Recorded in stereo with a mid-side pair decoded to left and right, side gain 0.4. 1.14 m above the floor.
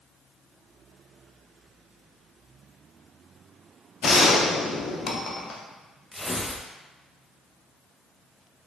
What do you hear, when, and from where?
4.0 s a gunshot: 55° left, 0.6 m
6.1 s tearing paper: 10° left, 0.6 m